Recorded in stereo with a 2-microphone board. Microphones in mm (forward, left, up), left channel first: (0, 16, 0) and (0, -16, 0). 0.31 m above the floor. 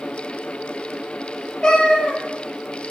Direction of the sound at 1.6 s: 25° left (ahead or behind).